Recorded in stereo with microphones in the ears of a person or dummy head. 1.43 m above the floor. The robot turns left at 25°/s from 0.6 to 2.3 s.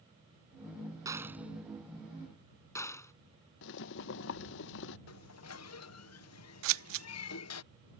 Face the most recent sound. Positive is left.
turn(degrees=-70)  # may be behind; listen again after turning